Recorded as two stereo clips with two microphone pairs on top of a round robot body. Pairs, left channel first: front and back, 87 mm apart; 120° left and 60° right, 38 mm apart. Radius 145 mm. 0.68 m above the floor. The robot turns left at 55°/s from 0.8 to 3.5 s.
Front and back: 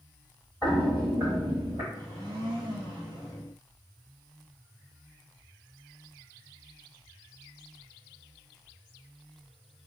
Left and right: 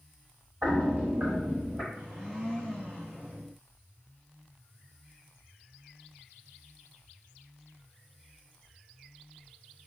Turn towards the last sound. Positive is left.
turn(degrees=145)